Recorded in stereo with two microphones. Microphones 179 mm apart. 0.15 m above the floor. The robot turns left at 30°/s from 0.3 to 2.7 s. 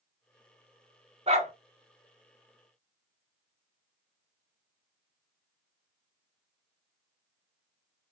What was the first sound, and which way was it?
A dog barking, 35° right (ahead or behind).